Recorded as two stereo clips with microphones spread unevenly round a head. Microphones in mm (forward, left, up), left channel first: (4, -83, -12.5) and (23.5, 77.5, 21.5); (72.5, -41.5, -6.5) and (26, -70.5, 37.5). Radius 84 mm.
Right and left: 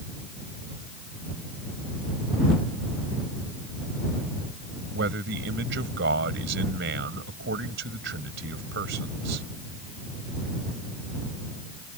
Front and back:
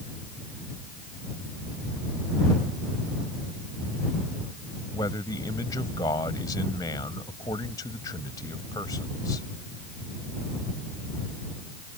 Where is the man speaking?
70° left.